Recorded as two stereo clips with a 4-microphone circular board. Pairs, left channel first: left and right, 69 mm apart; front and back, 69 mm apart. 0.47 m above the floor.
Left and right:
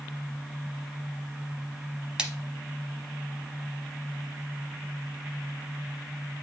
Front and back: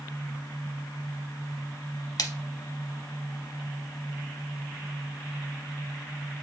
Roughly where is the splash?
Ahead.